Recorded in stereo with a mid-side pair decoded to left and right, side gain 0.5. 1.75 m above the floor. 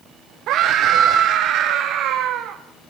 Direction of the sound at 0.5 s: 70° right.